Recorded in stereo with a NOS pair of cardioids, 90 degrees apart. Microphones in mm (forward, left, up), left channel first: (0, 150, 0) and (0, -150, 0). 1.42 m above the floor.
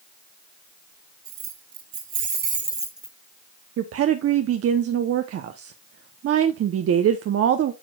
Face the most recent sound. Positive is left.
turn(degrees=-50)